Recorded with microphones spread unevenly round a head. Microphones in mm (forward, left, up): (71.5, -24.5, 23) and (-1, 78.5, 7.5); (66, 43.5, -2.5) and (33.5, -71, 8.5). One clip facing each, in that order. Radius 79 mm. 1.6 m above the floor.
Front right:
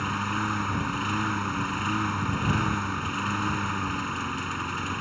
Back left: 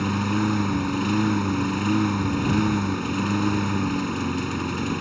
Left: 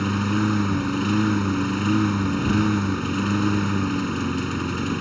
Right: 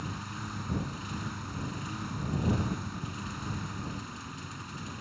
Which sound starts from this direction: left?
A lawn mower, at 0.0 s.